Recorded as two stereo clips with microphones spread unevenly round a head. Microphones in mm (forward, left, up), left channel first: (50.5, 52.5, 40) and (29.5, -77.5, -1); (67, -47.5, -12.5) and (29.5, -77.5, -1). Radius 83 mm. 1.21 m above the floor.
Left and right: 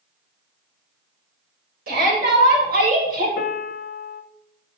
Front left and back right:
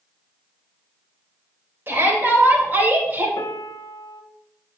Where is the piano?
65° left, 0.7 m.